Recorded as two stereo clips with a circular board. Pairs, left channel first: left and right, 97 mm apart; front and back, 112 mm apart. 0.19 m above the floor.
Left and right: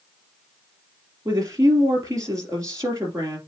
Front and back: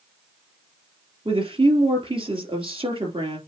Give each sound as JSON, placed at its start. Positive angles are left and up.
{"t": 1.2, "sound": "a woman speaking", "azimuth_deg": -145, "distance_m": 3.5}